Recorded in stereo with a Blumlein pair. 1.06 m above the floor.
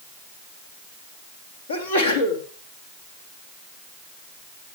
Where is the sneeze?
65° left, 2.5 m.